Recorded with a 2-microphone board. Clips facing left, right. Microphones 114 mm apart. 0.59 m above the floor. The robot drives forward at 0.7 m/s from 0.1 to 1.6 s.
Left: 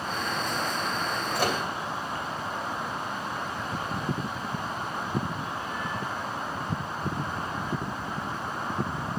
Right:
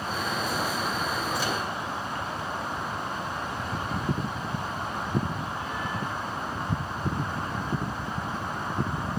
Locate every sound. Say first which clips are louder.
1.4 s a microwave: left 2 dB; 65° left (ahead or behind), 2.5 m